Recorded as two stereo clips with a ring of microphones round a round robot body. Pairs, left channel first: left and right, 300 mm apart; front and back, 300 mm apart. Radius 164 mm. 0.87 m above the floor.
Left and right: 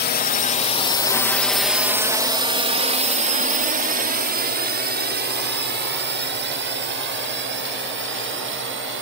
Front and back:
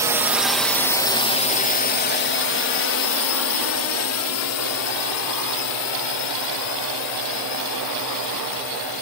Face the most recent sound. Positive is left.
turn(degrees=-40)